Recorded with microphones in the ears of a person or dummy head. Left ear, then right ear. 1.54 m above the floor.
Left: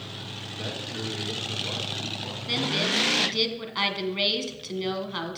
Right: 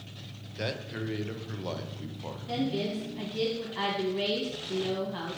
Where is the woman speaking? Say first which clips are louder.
Left 7 dB; 50° left (ahead or behind), 1.5 m.